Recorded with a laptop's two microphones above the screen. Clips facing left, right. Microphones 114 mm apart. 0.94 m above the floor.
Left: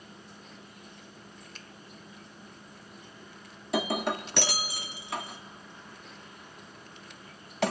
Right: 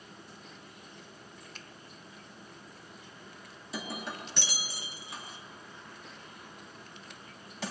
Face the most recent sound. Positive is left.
turn(degrees=60)  # may be behind; listen again after turning